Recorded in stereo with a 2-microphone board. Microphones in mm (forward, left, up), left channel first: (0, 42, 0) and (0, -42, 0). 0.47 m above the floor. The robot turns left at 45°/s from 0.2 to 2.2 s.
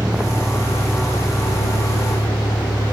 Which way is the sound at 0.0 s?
10° right (ahead or behind).